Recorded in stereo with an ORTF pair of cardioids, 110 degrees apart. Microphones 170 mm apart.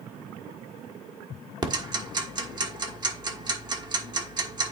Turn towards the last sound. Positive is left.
turn(degrees=-25)